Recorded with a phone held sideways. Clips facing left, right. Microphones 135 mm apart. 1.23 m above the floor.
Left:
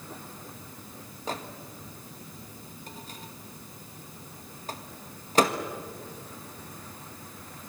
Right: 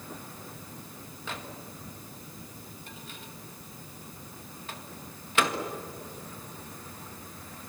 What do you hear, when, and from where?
1.3 s a microwave: 40° left (ahead or behind), 1.7 m